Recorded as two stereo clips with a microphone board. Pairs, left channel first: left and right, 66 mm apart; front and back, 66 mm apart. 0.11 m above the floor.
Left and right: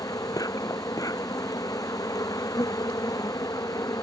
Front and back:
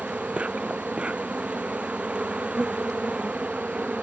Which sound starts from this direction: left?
An insect, at 0.0 s.